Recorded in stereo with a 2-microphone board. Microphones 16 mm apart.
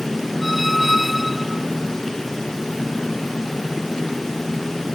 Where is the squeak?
20° right (ahead or behind).